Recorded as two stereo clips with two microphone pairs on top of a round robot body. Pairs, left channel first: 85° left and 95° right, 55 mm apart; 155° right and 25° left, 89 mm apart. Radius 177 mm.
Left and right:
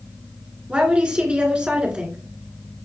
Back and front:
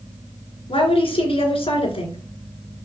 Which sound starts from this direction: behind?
A woman speaking, at 0.7 s.